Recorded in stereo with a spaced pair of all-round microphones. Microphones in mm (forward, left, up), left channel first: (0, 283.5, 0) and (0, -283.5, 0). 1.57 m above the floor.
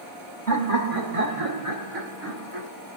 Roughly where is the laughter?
Right.